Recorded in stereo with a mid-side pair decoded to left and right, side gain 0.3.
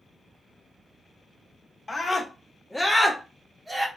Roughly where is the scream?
Ahead left.